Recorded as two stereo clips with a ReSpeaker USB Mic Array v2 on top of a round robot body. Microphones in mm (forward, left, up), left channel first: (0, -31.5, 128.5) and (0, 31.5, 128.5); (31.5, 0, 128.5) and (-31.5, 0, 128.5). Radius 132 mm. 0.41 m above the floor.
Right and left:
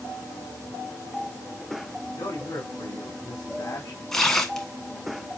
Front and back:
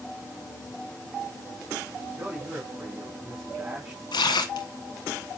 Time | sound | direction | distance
2.1 | a man speaking | 120° right | 4.5 m
4.1 | tearing paper | 5° right | 0.8 m